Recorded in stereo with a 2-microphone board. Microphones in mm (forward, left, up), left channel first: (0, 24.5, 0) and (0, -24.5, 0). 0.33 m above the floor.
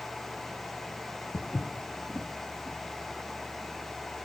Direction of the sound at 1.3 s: 30° left (ahead or behind).